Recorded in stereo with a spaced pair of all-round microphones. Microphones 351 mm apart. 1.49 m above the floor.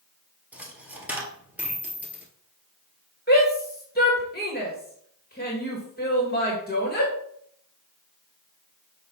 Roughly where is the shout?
Left.